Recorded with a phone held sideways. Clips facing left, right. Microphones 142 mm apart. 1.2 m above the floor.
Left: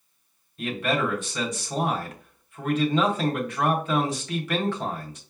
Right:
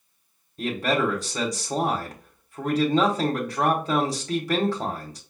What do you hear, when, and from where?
0.6 s a man speaking: 35° right (ahead or behind), 1.3 m